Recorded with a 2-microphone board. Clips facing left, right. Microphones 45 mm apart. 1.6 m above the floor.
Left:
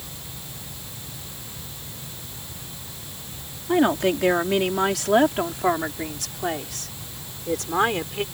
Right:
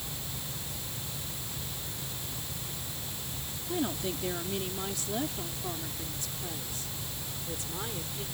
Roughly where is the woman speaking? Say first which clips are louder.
Left 13 dB; left.